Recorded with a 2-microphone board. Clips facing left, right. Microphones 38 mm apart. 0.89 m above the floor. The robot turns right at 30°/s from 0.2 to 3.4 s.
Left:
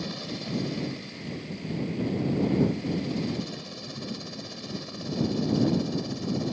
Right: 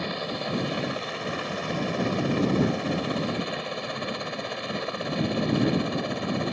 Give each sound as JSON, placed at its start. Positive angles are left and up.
{"t": 0.0, "sound": "a helicopter", "azimuth_deg": -145}